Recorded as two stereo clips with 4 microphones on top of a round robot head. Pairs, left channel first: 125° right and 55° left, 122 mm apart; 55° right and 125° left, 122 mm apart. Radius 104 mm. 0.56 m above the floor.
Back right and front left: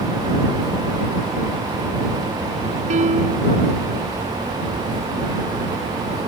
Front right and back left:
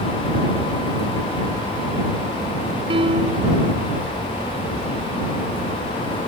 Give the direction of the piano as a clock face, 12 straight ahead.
9 o'clock.